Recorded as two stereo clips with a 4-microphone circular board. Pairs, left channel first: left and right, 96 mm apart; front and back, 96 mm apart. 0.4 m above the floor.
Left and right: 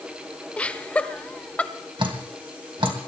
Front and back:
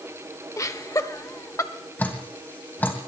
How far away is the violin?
I don't hear a violin.